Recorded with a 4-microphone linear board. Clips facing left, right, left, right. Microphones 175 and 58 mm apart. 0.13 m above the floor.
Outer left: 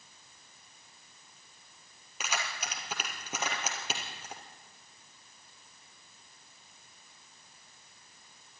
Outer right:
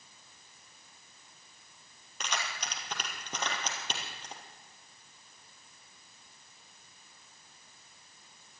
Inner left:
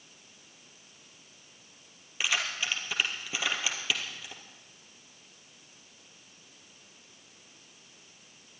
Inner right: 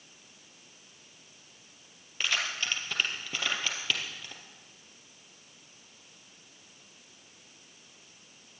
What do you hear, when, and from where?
2.2 s keys jangling: 5° left (ahead or behind), 2.5 m